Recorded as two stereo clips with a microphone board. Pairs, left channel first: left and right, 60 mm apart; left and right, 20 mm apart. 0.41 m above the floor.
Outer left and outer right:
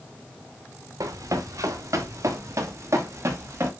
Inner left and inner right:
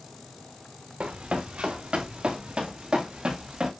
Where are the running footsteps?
70° right (ahead or behind), 2.5 m; by 3.7 s 45° right (ahead or behind), 4 m.